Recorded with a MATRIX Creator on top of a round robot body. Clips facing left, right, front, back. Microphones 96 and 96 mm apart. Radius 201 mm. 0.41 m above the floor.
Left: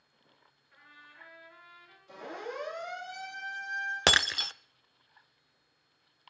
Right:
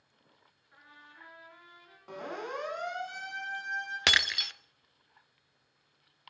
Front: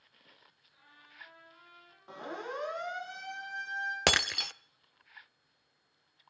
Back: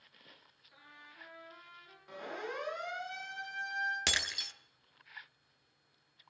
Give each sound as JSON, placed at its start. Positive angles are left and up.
{"t": 0.7, "sound": "a trumpet", "azimuth_deg": -155, "distance_m": 6.0}
{"t": 2.1, "sound": "a siren", "azimuth_deg": -60, "distance_m": 8.0}
{"t": 4.1, "sound": "breaking glass", "azimuth_deg": 35, "distance_m": 0.6}